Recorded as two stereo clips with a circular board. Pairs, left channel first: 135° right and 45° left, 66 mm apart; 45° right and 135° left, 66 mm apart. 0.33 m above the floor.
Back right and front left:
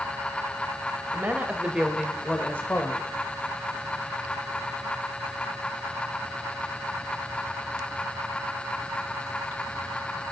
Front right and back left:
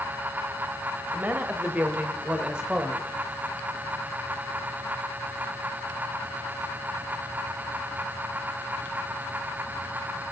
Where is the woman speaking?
85° left, 1.4 m; by 3.1 s 145° right, 1.4 m.